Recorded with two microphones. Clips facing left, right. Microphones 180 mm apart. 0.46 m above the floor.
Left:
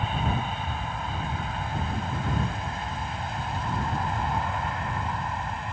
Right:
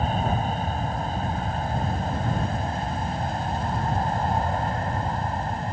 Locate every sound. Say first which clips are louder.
0.0 s an aircraft: right 4 dB; 40° right (ahead or behind); by 5.7 s 35° right (ahead or behind)